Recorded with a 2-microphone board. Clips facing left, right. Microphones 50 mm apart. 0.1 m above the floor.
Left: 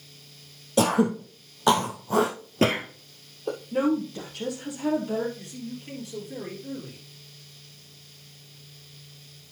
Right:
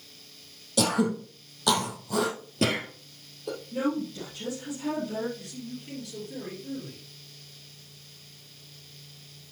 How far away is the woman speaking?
About 3.5 m.